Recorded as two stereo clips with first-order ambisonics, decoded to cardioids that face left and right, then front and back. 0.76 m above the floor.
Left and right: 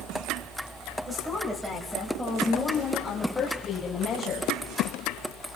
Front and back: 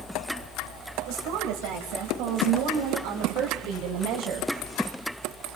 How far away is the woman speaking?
About 3.5 m.